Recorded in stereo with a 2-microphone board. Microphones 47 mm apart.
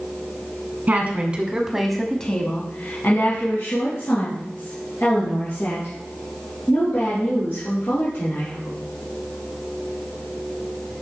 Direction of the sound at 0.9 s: 30° right (ahead or behind).